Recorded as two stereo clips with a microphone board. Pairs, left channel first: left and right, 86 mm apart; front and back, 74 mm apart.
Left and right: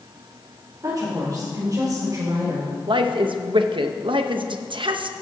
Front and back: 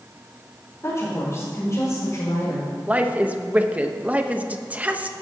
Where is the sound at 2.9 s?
110° right, 0.9 m.